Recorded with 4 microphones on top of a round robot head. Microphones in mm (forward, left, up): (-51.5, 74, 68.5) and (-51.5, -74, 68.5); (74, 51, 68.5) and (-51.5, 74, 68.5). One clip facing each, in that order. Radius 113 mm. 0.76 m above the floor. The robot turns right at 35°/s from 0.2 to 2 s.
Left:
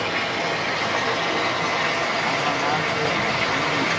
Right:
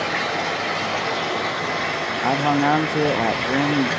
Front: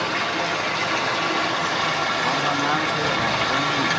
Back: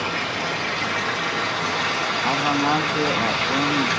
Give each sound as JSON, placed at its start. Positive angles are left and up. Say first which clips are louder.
{"t": 0.0, "sound": "running water", "louder": "right 1 dB, front 2 dB", "azimuth_deg": -35, "distance_m": 5.5}
{"t": 2.2, "sound": "a man speaking", "louder": "right 10 dB, back 4 dB", "azimuth_deg": -115, "distance_m": 0.6}